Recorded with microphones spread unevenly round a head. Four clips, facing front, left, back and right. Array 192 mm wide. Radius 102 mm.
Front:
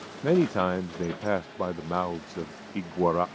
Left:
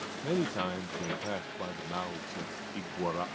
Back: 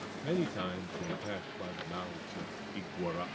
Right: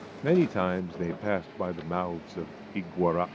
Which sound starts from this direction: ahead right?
A man speaking, at 0.2 s.